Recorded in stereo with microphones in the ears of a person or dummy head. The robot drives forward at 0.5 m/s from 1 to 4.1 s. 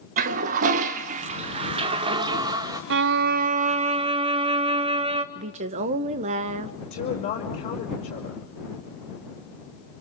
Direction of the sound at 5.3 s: 40° right (ahead or behind).